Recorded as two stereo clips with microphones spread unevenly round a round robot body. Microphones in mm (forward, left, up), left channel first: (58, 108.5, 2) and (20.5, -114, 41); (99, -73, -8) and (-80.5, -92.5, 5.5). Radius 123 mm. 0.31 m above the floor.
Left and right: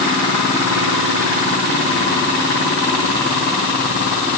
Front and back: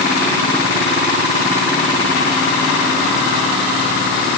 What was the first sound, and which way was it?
Only background noise.